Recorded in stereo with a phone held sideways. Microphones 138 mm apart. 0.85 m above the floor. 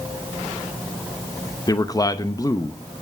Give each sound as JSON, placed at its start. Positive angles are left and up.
{"t": 1.7, "sound": "a man speaking", "side_deg": 25, "distance_m": 0.7}